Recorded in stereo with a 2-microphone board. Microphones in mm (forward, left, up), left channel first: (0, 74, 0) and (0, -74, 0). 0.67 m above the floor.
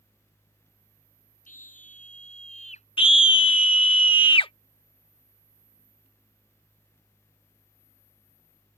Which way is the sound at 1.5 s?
65° left (ahead or behind).